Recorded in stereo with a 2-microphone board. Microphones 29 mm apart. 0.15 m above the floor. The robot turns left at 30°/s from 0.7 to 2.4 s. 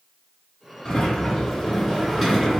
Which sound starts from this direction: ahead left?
A sliding door, at 0.8 s.